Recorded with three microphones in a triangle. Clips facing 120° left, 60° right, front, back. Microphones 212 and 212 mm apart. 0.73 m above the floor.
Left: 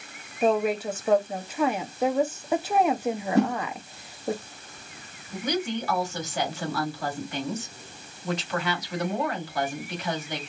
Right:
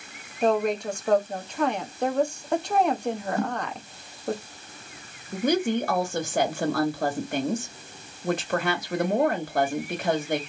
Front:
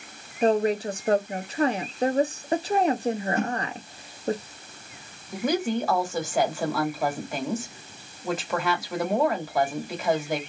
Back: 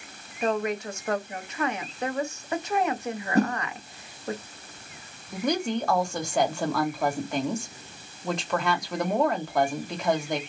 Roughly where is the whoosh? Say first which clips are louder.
Left 10 dB, back 4 dB; behind left.